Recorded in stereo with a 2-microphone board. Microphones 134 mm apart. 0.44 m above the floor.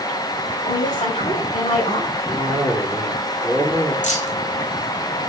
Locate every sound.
0.7 s a woman speaking: 60° left (ahead or behind), 2.5 m
2.3 s a cough: centre (ahead or behind), 4.5 m
4.0 s keys jangling: 65° left (ahead or behind), 1.6 m